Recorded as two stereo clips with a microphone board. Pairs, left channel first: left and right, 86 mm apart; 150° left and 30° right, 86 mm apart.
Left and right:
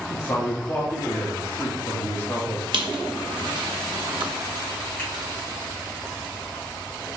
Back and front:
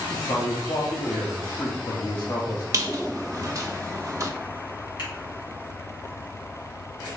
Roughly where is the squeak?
Right.